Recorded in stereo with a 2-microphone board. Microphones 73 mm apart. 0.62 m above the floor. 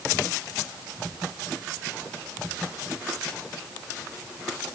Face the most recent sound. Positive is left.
No sound to turn to.